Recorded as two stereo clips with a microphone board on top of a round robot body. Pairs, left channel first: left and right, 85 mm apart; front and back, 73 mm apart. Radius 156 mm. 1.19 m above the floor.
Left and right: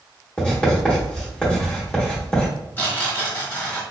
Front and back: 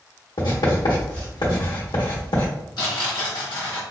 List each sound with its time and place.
0.4 s writing: 10° left, 0.8 m
2.8 s tearing paper: 25° left, 1.0 m